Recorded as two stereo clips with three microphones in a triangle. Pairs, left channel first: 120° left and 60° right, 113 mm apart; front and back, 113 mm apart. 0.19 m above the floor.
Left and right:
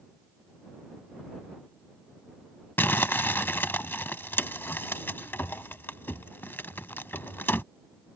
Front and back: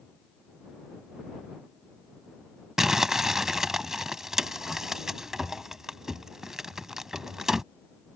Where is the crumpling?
100° left.